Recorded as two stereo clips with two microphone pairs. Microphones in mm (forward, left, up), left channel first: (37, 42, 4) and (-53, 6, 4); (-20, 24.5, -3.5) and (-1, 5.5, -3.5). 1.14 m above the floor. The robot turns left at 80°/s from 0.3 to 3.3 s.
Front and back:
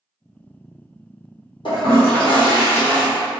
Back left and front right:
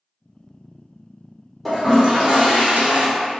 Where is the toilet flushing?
50° left, 1.2 m; by 3.1 s 65° right, 1.2 m.